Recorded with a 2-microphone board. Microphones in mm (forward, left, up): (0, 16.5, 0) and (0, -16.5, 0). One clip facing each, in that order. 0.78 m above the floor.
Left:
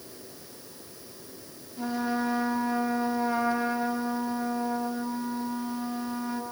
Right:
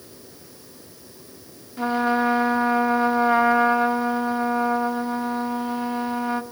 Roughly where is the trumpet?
Right.